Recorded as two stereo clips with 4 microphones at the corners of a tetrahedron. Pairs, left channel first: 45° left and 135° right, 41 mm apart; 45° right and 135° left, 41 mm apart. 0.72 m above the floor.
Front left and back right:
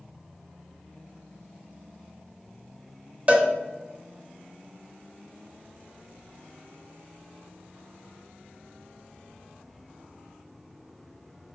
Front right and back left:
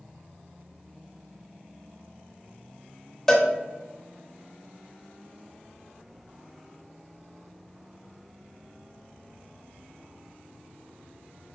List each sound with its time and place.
3.3 s a cowbell: 120° right, 0.9 m